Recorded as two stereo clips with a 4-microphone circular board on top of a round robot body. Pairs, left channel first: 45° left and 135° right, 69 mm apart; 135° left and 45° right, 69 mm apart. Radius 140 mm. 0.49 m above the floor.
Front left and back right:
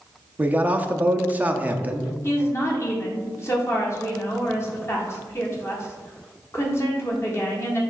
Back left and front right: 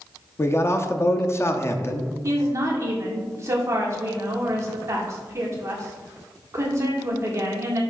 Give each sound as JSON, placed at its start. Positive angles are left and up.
{"t": 0.4, "sound": "a man speaking", "azimuth_deg": 165, "distance_m": 0.8}
{"t": 2.2, "sound": "a woman speaking", "azimuth_deg": 0, "distance_m": 1.7}